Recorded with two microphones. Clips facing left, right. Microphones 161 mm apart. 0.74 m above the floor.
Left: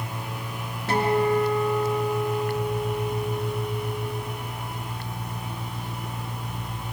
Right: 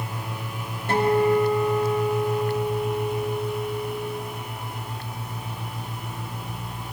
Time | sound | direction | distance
0.9 | a guitar | 80° left | 6.5 m